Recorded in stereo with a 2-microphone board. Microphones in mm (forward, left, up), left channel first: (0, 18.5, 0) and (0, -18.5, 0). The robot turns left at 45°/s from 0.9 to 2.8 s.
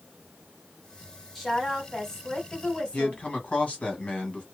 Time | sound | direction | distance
1.4 | a woman speaking | centre (ahead or behind) | 1.4 m
2.9 | a man speaking | 35° left (ahead or behind) | 1.5 m